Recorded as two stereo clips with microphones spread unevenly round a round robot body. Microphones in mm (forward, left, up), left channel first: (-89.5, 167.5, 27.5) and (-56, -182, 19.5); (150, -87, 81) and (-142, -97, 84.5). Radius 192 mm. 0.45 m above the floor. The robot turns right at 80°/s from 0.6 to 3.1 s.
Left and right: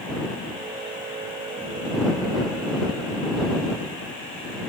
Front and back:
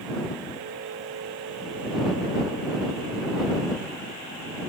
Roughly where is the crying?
I don't hear crying.